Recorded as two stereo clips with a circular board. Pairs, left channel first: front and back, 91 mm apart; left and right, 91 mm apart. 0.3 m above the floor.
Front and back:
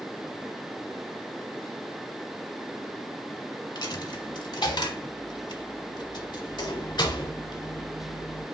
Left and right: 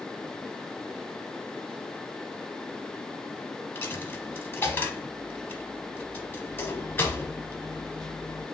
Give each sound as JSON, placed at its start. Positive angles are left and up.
{"t": 3.8, "sound": "a dropped coin", "azimuth_deg": 25, "distance_m": 0.8}